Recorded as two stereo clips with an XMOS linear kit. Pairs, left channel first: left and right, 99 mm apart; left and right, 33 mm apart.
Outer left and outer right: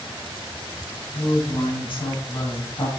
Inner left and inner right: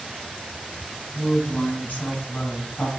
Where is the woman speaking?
60° left (ahead or behind), 3.5 m; by 2.9 s 55° left (ahead or behind), 6 m.